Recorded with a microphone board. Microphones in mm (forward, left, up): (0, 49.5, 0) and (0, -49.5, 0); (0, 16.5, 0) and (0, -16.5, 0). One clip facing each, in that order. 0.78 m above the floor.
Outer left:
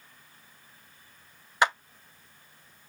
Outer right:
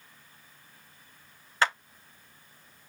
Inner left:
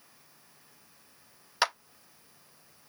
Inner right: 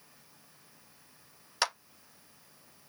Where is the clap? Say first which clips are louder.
Outer left 2 dB, inner left 3 dB; 15° left (ahead or behind), 0.5 m.